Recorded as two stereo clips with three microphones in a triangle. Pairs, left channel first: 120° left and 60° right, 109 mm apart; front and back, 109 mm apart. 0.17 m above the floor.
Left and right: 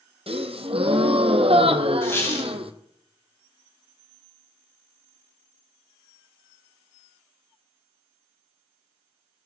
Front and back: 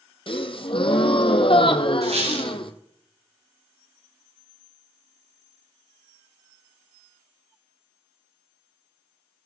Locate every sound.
0.3 s a gasp: 35° right, 1.3 m
2.0 s a squeak: 170° right, 8.5 m